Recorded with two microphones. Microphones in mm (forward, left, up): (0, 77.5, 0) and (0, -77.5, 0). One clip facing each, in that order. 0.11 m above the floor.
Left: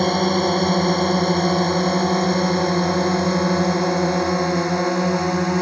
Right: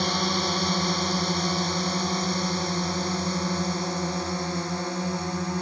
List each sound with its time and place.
0.0 s a drone: 50° left (ahead or behind); by 5.6 s 70° left (ahead or behind)